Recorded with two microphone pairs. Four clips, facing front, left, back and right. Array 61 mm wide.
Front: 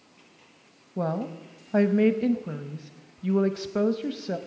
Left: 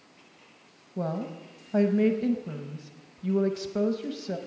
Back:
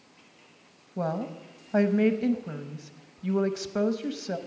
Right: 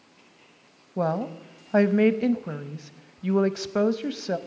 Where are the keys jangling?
No keys jangling in this recording.